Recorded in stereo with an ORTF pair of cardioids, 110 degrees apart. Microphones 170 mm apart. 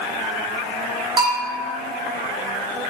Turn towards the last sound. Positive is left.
turn(degrees=-30)